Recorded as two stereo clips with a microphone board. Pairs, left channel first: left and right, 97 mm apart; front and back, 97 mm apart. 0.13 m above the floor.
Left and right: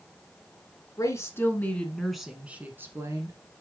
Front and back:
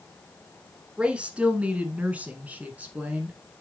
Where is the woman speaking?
110° left, 1.4 m; by 3.4 s 110° right, 1.5 m.